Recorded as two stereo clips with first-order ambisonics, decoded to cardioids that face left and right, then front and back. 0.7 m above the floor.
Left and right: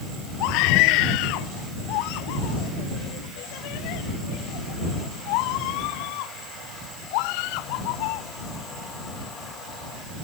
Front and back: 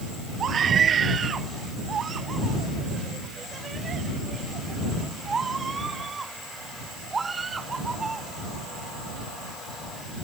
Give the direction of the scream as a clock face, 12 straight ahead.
8 o'clock.